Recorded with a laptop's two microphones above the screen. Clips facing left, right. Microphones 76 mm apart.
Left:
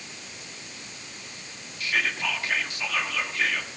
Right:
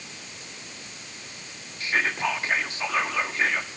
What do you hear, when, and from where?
1.8 s whispering: 30° right (ahead or behind), 1.3 m